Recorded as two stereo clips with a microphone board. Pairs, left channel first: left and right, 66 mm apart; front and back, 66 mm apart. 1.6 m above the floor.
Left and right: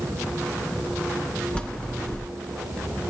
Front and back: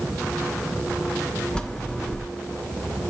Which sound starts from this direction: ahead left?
A bell, at 1.6 s.